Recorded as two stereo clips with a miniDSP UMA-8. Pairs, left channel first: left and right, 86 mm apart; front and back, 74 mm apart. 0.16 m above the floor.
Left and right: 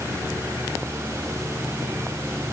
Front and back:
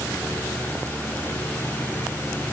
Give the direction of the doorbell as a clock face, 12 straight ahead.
I don't hear a doorbell.